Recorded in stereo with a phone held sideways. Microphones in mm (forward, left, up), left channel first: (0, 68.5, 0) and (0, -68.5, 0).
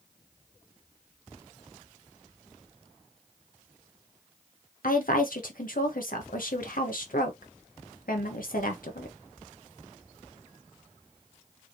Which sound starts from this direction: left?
A woman speaking, at 4.8 s.